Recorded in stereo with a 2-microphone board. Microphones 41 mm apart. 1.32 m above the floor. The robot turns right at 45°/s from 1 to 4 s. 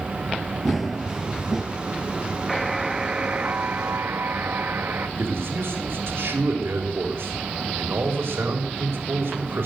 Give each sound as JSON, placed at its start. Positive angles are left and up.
{"t": 0.7, "sound": "running footsteps", "side_deg": 0, "distance_m": 1.4}
{"t": 2.5, "sound": "a buzzer", "azimuth_deg": 175, "distance_m": 1.3}
{"t": 5.2, "sound": "a man speaking", "side_deg": -75, "distance_m": 4.0}